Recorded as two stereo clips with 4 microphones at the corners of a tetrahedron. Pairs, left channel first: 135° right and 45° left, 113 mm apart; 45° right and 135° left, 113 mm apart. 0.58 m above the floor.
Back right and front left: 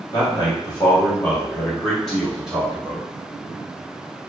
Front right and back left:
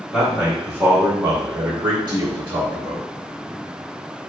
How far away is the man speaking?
About 1.2 m.